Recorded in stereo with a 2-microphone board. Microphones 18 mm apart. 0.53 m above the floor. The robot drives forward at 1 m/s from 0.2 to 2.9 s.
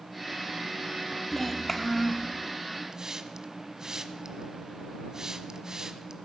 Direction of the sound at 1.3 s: 10° left (ahead or behind).